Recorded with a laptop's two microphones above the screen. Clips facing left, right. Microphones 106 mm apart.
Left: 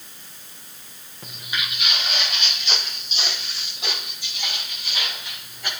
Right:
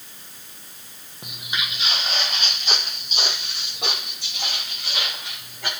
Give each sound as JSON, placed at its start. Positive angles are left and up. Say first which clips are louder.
{"t": 1.2, "sound": "footsteps", "louder": "even", "side_deg": -15, "distance_m": 1.6}